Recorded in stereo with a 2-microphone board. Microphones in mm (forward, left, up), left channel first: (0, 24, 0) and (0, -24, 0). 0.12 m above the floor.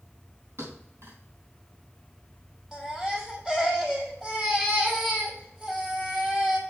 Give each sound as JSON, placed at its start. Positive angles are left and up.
{"t": 0.6, "sound": "a thud", "side_deg": -60, "distance_m": 4.5}
{"t": 2.7, "sound": "a baby crying", "side_deg": -10, "distance_m": 2.0}